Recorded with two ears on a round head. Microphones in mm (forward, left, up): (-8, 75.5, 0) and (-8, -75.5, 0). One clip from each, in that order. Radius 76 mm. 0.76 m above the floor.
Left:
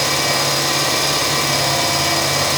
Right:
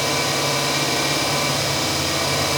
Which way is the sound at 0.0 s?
50° left (ahead or behind).